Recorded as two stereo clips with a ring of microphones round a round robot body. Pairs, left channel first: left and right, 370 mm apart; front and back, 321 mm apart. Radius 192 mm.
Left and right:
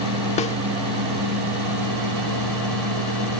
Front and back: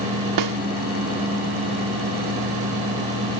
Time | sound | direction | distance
0.4 | a snare drum | 160° left | ?